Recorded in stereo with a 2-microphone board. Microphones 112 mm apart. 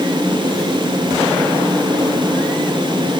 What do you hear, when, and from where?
Only background noise.